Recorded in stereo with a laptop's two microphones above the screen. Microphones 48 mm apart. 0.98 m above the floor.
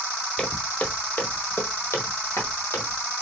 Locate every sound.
0.4 s footsteps: 20° left (ahead or behind), 1.3 m; by 3.1 s 60° left (ahead or behind), 1.9 m